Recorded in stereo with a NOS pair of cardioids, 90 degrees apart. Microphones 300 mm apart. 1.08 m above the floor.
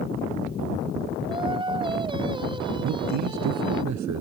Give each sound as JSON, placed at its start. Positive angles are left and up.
{"t": 1.3, "sound": "singing", "azimuth_deg": -15}
{"t": 2.8, "sound": "a man speaking", "azimuth_deg": -65}